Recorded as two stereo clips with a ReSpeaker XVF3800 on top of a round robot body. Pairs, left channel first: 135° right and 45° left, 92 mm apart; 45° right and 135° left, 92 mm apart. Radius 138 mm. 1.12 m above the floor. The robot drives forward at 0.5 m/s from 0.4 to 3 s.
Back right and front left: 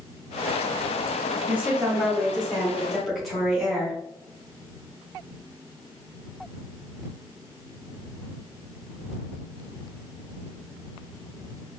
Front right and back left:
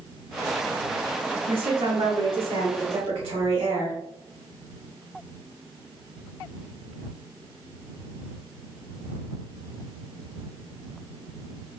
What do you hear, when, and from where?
1.5 s a woman speaking: 115° left, 1.8 m; by 4.0 s 135° left, 2 m